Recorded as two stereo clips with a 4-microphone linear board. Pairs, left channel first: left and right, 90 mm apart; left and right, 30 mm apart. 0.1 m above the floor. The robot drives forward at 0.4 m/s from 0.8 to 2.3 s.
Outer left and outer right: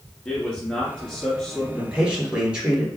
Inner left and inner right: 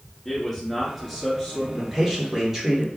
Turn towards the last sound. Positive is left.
turn(degrees=-10)  # may be behind; listen again after turning